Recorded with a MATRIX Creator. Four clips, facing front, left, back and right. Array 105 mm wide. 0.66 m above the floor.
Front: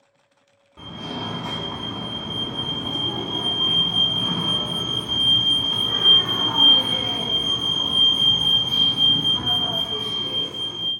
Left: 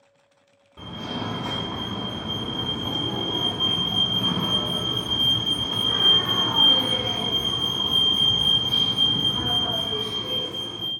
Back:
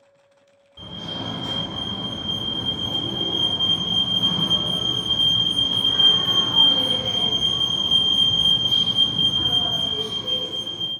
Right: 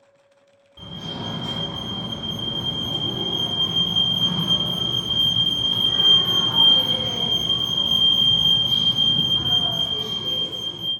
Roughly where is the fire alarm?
Ahead left.